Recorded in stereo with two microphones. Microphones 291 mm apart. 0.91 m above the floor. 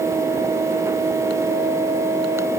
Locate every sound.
Only background noise.